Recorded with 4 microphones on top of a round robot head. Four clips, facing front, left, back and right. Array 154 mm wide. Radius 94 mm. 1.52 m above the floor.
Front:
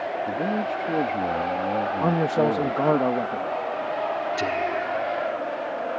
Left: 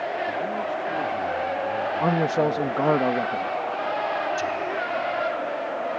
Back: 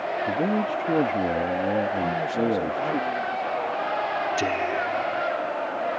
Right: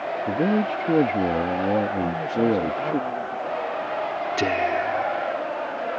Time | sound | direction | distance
0.3 | a man speaking | 105° right | ?
2.0 | a man speaking | 40° left | ?
4.4 | whispering | 105° right | ?